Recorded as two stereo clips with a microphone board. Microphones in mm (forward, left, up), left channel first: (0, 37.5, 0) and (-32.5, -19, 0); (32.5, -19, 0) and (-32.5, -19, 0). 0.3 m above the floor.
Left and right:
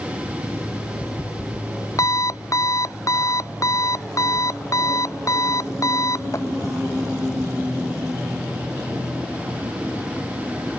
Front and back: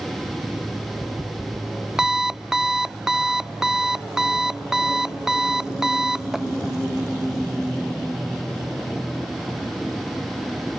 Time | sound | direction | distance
0.4 | an alarm clock | 100° left | ?